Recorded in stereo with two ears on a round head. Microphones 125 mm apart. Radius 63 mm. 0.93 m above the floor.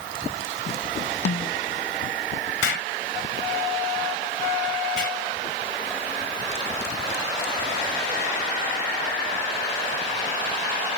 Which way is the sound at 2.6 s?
85° left.